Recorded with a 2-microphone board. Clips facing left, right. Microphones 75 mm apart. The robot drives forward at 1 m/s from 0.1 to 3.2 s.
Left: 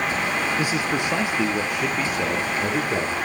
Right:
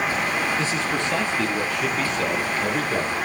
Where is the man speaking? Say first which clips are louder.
Left 1 dB; 15° left (ahead or behind), 3 m; by 3.2 s 10° left (ahead or behind), 5.5 m.